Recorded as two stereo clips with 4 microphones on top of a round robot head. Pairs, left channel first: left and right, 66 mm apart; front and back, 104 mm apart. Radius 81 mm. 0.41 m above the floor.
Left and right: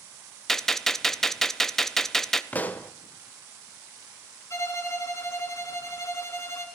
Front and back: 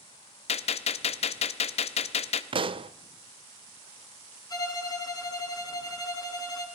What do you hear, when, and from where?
0.5 s a gunshot: 5° left, 0.8 m
2.5 s a pop: 155° left, 0.7 m
4.5 s a violin: 50° left, 3 m